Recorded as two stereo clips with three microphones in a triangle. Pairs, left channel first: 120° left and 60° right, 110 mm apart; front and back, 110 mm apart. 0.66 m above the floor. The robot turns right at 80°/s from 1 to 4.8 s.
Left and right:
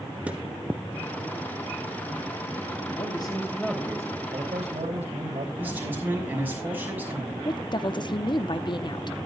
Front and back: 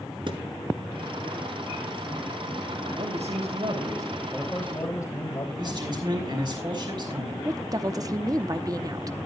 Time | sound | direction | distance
0.3 | a thud | 135° right | 2 m
3.0 | a man speaking | 155° left | 3 m
5.6 | a man speaking | 135° right | 5.5 m
7.5 | a woman speaking | 140° left | 0.9 m